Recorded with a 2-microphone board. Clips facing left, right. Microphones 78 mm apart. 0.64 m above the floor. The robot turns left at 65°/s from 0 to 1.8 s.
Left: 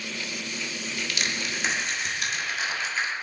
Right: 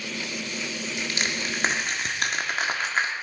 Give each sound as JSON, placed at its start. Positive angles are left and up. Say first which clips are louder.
{"t": 1.0, "sound": "crushing", "louder": "right 1 dB", "side_deg": -20, "distance_m": 1.5}